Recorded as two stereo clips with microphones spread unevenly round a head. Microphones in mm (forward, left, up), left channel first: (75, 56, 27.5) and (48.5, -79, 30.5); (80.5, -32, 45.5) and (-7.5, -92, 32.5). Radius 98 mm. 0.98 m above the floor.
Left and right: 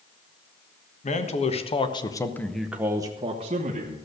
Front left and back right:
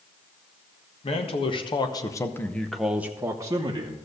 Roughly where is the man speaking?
Ahead left.